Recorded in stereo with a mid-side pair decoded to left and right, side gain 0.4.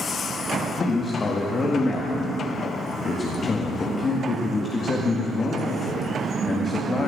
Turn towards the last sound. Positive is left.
turn(degrees=40)